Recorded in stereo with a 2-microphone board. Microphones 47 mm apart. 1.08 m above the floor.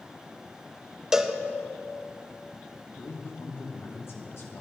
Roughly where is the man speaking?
Left.